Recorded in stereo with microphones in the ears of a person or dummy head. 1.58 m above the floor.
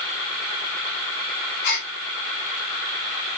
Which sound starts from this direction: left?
A gasp, at 1.6 s.